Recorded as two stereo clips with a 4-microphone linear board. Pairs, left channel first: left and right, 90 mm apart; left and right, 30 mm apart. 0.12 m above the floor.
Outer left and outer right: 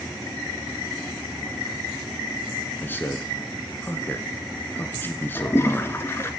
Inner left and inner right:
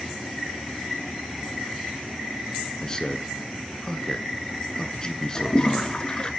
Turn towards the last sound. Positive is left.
turn(degrees=30)  # may be behind; listen again after turning